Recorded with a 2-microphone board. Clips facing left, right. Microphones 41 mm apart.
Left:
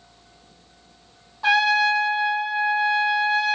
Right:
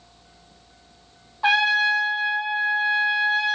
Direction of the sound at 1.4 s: 20° right (ahead or behind).